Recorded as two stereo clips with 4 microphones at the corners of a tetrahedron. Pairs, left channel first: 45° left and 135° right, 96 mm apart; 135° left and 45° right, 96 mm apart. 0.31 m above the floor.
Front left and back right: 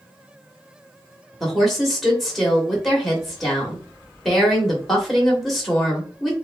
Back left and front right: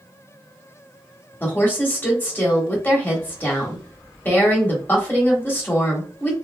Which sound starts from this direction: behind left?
A woman speaking, at 1.4 s.